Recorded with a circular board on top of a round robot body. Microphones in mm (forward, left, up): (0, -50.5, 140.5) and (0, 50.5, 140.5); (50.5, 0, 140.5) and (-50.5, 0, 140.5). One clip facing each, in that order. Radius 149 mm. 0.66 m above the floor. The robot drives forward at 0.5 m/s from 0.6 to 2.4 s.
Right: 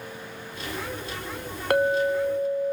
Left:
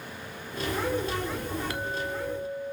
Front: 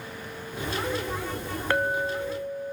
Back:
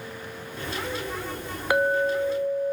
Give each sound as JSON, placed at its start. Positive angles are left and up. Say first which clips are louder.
{"t": 1.7, "sound": "a clink", "louder": "right 11 dB, back 5 dB", "azimuth_deg": -105, "distance_m": 0.8}